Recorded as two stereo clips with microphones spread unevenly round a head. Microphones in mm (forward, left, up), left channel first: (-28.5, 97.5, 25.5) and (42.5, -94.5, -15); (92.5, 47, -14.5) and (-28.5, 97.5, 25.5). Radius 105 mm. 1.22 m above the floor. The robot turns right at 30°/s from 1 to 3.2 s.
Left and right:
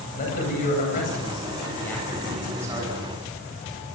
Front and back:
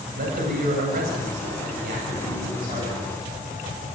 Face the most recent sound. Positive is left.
turn(degrees=-130)